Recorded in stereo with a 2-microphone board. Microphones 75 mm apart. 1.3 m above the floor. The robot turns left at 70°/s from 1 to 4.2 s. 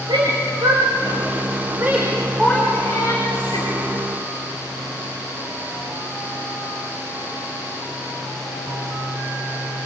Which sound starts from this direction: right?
A shout, at 0.1 s.